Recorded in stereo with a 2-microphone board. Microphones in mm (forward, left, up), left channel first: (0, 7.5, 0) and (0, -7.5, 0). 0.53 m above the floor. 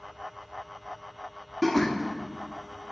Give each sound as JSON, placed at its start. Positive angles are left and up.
{"t": 1.6, "sound": "laughter", "side_deg": 10, "distance_m": 1.2}